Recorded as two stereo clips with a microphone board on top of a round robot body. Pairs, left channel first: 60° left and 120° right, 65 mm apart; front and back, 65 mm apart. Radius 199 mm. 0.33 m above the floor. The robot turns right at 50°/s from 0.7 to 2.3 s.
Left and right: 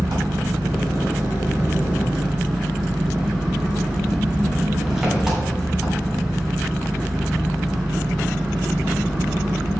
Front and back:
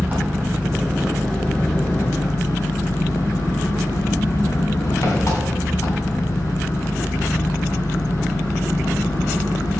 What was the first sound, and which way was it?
An engine running, 115° right.